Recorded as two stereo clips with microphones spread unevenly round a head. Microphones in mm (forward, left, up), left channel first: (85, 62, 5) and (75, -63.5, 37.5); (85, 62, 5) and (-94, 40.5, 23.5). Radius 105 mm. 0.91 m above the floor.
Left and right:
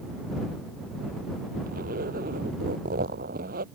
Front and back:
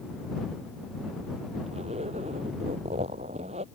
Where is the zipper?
110° right.